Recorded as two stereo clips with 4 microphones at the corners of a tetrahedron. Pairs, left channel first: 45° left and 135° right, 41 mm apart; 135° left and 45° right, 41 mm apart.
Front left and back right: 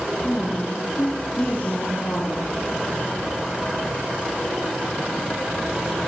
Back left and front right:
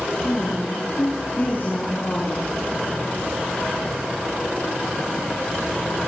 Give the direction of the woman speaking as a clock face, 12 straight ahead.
9 o'clock.